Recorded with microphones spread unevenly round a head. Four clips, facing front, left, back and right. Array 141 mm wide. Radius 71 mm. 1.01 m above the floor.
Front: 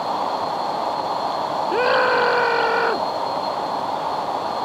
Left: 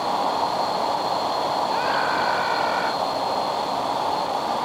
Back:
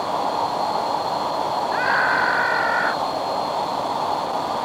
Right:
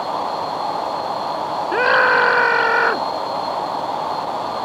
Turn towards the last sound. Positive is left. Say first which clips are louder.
# right 7 dB, front 4 dB
turn(degrees=-45)